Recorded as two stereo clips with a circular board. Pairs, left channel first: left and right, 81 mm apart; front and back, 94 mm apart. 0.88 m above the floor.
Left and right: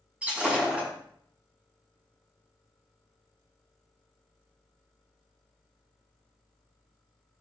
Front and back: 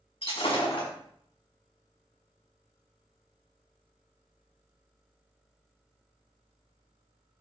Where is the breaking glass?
15° right, 5 m.